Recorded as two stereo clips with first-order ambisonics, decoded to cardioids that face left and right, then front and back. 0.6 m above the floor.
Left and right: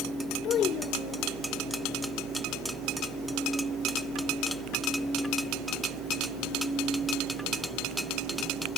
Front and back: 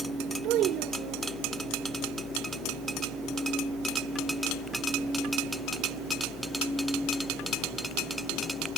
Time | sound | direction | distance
0.4 | a child speaking | 140° left | ?